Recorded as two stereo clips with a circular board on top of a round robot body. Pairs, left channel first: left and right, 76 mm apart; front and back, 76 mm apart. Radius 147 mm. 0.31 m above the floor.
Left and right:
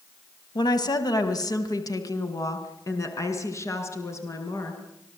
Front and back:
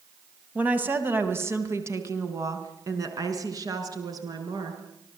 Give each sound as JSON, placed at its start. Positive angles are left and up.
{"t": 0.6, "sound": "a woman speaking", "azimuth_deg": 110, "distance_m": 3.0}